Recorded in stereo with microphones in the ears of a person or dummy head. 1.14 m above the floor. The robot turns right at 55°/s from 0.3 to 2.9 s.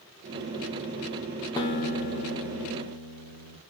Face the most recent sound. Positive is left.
turn(degrees=105)